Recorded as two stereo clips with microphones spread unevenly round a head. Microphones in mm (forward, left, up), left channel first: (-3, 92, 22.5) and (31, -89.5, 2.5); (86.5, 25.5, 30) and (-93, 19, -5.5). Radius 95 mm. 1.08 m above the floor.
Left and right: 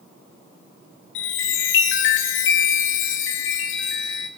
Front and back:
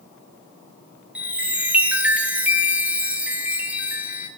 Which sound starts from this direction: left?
A chime, at 1.1 s.